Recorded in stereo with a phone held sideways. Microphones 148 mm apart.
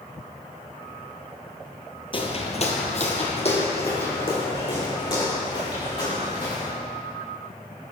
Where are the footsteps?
35° left (ahead or behind), 1.3 m.